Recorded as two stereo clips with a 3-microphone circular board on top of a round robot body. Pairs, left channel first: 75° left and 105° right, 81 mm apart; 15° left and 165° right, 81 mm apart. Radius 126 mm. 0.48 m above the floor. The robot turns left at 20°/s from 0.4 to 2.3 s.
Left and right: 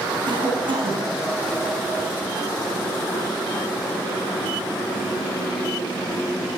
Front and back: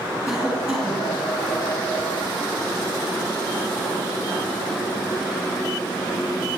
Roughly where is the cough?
Right.